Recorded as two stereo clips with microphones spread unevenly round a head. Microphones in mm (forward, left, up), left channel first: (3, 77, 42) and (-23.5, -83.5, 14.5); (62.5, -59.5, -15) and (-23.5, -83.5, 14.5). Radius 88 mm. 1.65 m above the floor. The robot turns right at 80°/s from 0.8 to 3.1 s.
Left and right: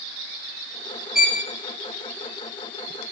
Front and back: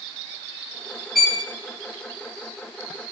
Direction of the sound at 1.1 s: 150° left.